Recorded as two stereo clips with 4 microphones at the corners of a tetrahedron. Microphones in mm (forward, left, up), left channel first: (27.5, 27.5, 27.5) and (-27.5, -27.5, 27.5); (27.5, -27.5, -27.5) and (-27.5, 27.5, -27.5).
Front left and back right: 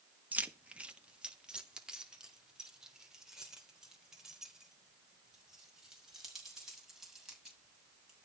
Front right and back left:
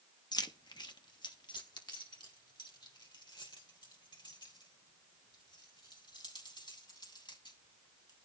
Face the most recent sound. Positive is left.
turn(degrees=-50)